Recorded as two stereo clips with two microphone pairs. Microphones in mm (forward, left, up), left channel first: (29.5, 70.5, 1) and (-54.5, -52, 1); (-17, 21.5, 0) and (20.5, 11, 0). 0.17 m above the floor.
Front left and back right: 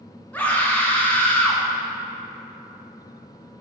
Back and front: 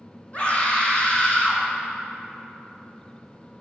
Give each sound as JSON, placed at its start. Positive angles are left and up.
{"t": 0.3, "sound": "a scream", "azimuth_deg": 130, "distance_m": 1.4}